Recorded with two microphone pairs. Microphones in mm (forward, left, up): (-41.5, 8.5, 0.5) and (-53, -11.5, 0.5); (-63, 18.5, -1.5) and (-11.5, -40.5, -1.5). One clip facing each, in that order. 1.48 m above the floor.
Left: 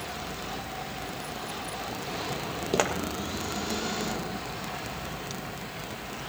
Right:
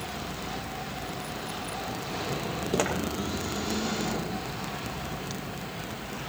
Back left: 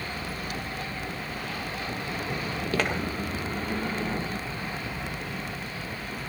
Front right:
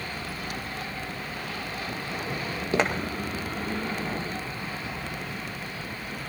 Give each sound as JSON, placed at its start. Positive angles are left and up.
{"t": 2.7, "sound": "footsteps", "azimuth_deg": 0, "distance_m": 1.7}